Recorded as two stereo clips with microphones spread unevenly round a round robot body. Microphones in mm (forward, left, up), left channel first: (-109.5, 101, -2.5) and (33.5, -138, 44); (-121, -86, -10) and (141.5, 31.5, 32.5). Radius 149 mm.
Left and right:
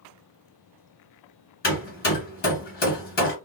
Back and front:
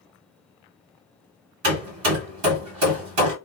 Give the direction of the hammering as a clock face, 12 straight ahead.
10 o'clock.